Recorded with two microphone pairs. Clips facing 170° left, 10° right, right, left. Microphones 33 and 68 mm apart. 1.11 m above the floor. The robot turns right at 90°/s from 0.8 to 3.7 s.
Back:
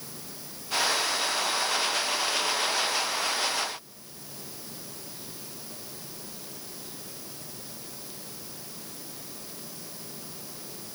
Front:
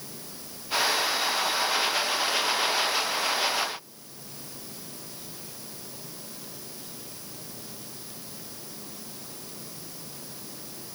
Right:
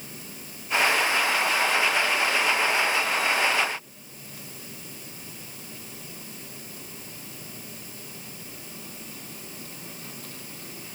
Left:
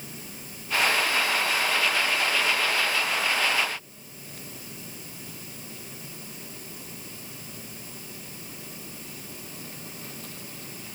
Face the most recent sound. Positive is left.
No sound to turn to.